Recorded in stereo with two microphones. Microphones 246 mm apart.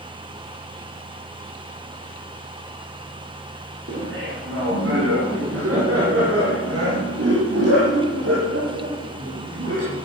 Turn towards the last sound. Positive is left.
turn(degrees=-75)  # may be behind; listen again after turning